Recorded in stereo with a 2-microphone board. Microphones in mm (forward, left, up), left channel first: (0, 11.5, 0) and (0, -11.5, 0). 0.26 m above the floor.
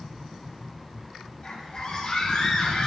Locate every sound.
1.4 s a scream: 30° left (ahead or behind), 5.5 m; by 2.9 s 35° left (ahead or behind), 3.5 m